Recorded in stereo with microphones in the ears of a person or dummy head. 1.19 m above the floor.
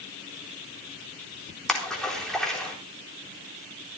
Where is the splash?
5° left (ahead or behind), 3.5 m.